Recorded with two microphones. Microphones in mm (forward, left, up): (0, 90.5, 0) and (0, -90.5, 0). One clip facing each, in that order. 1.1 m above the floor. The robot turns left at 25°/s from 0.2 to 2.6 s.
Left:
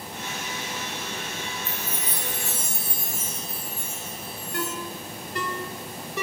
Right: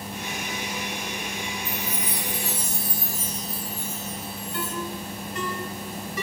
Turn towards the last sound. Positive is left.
turn(degrees=70)  # may be behind; listen again after turning